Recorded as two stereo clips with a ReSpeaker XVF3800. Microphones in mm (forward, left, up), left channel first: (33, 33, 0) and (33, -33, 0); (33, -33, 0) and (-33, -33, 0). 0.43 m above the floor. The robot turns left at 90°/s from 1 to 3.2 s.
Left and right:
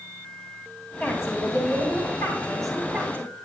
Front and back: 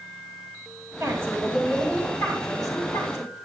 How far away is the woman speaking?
About 3 m.